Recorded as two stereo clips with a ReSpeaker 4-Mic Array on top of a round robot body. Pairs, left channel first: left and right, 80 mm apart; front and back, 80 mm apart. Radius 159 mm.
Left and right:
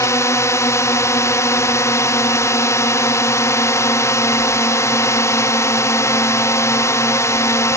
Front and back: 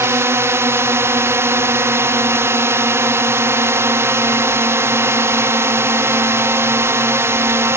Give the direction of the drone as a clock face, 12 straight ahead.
8 o'clock.